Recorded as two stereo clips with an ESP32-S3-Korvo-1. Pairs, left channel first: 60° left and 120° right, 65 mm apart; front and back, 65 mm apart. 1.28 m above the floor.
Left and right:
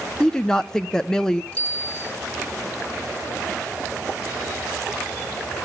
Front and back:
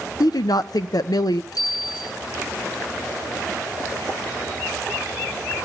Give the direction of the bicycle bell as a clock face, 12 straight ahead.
12 o'clock.